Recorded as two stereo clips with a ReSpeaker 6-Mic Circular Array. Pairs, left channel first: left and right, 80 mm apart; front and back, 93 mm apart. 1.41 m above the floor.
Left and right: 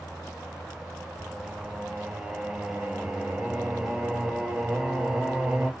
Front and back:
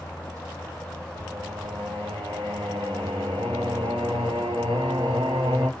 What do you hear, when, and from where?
1.2 s singing: 175° right, 1.2 m